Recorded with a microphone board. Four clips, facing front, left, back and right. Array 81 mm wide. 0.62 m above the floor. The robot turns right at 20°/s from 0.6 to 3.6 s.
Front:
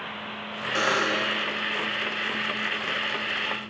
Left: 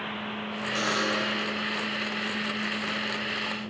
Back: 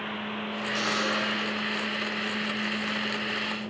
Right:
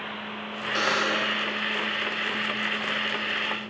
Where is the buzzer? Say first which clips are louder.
Right 3 dB, front 5 dB; 25° right, 0.7 m; by 1.4 s 15° right, 0.7 m.